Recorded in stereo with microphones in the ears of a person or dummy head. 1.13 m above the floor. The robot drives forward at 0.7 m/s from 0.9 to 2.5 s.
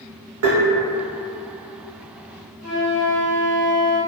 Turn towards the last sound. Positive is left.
turn(degrees=-10)  # may be behind; listen again after turning